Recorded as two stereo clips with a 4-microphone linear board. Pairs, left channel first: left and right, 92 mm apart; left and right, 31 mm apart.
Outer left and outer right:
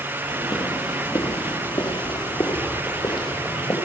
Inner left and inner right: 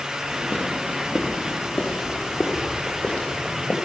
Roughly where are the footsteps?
Left.